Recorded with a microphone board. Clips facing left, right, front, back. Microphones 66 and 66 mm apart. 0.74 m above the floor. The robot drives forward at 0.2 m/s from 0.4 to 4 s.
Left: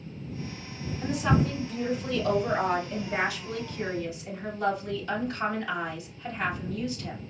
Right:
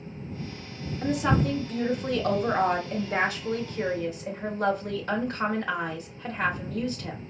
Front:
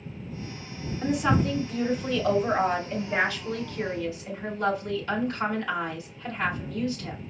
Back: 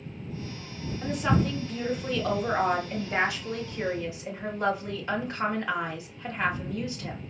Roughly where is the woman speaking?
Right.